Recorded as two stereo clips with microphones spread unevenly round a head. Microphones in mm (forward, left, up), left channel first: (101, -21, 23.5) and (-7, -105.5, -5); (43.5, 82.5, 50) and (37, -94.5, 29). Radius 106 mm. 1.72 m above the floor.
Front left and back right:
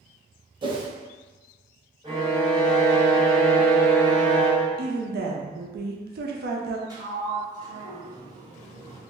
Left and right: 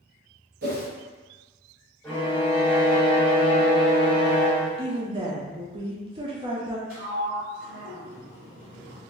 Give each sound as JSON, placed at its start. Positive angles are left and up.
{"t": 0.6, "sound": "a whoosh", "azimuth_deg": -90, "distance_m": 0.7}
{"t": 2.0, "sound": "a violin", "azimuth_deg": 160, "distance_m": 1.4}
{"t": 4.8, "sound": "a woman speaking", "azimuth_deg": -160, "distance_m": 0.5}
{"t": 6.9, "sound": "a sliding door", "azimuth_deg": -85, "distance_m": 1.6}